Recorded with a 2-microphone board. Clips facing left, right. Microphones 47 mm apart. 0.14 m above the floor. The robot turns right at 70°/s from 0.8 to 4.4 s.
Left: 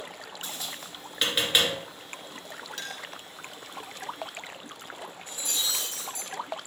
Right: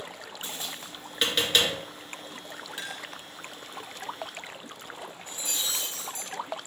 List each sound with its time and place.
0.4 s tapping: 25° right (ahead or behind), 2.5 m; by 1.7 s 25° left (ahead or behind), 2.5 m
2.8 s a clink: 20° right (ahead or behind), 1.2 m; by 3.1 s 5° right (ahead or behind), 1.2 m
5.3 s breaking glass: 35° right (ahead or behind), 3 m